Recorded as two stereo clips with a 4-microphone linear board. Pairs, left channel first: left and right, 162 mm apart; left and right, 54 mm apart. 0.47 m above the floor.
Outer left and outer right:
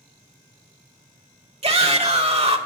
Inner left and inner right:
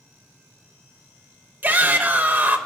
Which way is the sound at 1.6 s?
40° right (ahead or behind).